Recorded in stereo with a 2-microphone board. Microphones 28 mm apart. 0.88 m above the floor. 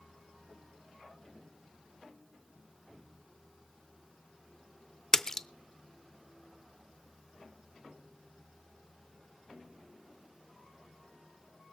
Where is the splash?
15° left (ahead or behind), 0.5 m.